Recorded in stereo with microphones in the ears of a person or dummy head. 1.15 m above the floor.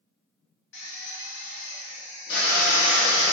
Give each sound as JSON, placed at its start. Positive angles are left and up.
{"t": 0.7, "sound": "a drill", "side_deg": 60, "distance_m": 0.9}